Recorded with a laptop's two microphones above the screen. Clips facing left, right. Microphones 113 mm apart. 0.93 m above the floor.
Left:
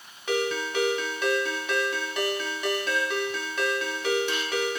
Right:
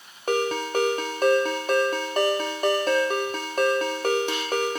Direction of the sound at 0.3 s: 45° right (ahead or behind).